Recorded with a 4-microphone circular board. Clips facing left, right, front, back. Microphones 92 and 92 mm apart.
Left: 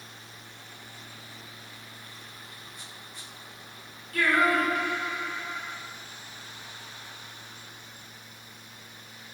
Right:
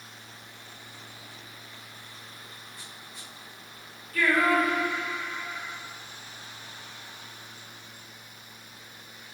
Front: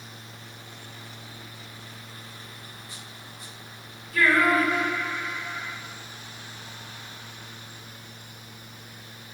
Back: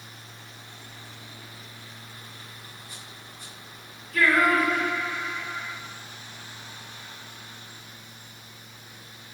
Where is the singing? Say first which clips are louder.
Even, even; 85° left, 2.5 m.